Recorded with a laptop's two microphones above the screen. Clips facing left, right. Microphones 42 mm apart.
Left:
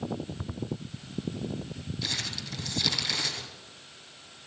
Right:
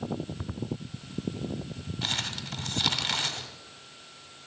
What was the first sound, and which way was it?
Crumpling, 55° right (ahead or behind).